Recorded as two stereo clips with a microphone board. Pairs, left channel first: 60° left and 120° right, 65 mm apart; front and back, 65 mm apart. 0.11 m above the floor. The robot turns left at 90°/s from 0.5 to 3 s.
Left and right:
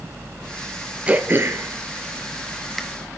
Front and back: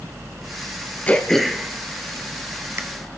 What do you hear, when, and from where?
1.1 s throat clearing: 55° right, 1.4 m; by 2.8 s 145° left, 1.4 m